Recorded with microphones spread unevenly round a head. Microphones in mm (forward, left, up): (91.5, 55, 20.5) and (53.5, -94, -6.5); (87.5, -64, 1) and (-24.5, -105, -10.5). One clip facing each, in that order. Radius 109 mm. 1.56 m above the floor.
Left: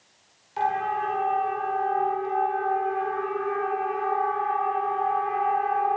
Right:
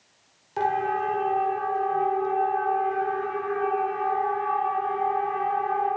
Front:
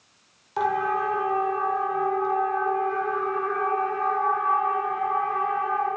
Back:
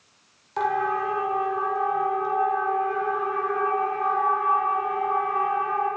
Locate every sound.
0.6 s a siren: 65° right, 5.5 m; by 5.9 s 85° right, 12.5 m